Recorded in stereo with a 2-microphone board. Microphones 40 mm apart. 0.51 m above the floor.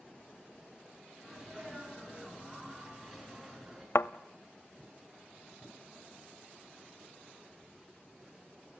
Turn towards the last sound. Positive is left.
turn(degrees=80)